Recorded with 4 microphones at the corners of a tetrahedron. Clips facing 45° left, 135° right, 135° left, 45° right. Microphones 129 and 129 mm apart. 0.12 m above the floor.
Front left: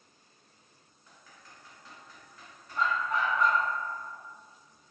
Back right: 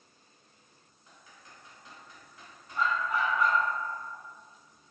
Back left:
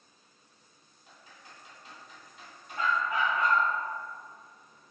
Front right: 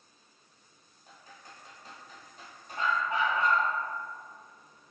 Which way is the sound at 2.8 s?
50° right.